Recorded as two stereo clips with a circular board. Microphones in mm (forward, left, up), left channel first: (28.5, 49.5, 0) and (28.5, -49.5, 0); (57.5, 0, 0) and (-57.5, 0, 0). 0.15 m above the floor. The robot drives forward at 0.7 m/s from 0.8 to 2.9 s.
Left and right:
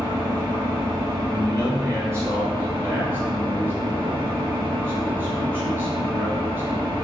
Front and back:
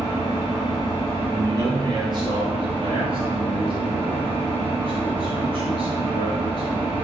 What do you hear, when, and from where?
0.0 s an engine running: 50° right, 1.8 m; by 7.0 s 115° right, 1.6 m
1.3 s a man speaking: 125° right, 1.4 m; by 6.9 s 155° right, 2 m